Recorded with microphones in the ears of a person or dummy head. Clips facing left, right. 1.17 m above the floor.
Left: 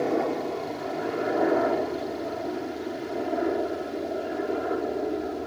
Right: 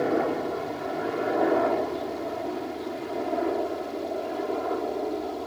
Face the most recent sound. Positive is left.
turn(degrees=15)  # may be behind; listen again after turning